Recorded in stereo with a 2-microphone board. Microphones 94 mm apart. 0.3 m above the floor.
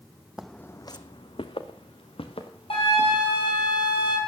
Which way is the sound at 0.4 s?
5° right (ahead or behind).